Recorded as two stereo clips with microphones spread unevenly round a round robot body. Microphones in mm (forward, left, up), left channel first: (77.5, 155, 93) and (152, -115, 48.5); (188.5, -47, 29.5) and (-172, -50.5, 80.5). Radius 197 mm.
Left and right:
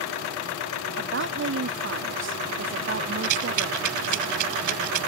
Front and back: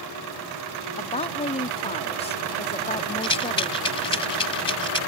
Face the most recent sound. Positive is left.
turn(degrees=-75)